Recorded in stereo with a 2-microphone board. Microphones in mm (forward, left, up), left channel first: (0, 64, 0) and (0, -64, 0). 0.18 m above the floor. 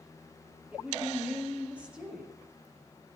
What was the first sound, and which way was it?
A woman speaking, 10° right (ahead or behind).